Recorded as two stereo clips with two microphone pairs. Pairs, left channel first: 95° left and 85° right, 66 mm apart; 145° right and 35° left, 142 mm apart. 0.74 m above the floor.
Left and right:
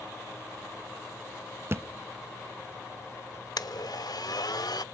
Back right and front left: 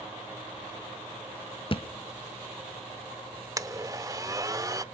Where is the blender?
100° left, 0.6 m.